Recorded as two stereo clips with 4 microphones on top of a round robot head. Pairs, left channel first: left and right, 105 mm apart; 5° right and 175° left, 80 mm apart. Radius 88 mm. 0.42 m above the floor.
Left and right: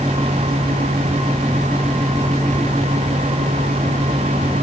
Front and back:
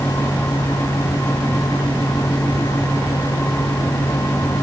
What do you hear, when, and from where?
Only background noise.